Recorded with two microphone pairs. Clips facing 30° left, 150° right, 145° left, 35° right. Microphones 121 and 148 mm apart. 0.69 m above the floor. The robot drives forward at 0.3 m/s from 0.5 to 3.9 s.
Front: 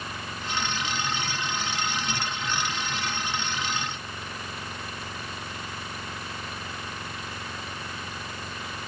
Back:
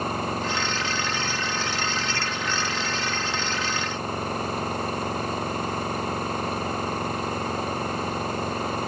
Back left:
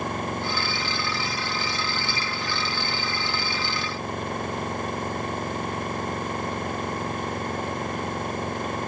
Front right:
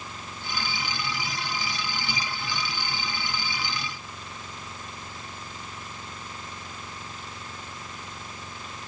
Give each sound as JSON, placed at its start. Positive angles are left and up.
{"t": 0.0, "sound": "an engine running", "azimuth_deg": 170}